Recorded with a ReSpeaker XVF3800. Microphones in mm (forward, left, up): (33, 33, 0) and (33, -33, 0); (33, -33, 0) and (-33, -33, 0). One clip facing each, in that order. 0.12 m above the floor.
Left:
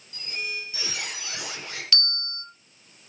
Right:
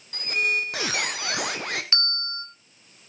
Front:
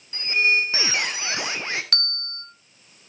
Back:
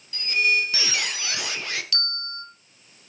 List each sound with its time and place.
0.1 s a squeak: 60° right, 2.5 m
1.9 s a bell: 30° right, 1.9 m